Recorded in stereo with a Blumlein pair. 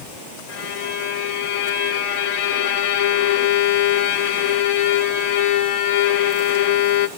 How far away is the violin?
About 0.9 m.